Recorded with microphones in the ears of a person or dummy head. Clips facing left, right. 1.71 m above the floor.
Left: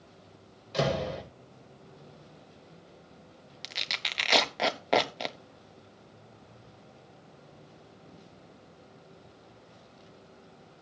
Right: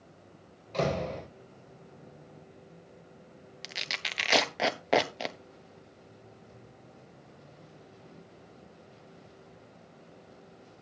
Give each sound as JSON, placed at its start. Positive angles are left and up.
{"t": 0.7, "sound": "a door slam", "side_deg": 10, "distance_m": 6.5}
{"t": 3.6, "sound": "tearing paper", "side_deg": -10, "distance_m": 1.1}